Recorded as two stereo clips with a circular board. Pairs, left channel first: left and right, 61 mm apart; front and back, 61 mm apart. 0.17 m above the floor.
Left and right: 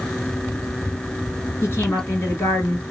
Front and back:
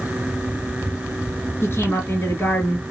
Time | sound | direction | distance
1.6 | a woman speaking | 50° left | 2.5 m